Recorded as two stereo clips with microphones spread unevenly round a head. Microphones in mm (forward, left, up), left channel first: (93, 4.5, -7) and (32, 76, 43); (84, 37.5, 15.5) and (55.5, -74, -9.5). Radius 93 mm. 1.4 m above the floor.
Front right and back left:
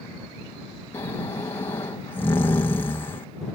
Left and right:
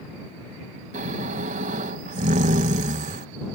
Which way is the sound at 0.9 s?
120° right.